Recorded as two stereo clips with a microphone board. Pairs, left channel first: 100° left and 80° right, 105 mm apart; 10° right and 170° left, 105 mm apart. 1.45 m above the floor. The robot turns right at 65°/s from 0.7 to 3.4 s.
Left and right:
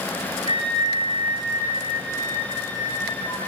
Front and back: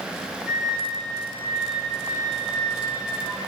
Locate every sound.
0.5 s a flute: 90° right, 2.5 m; by 3.4 s 85° left, 2.5 m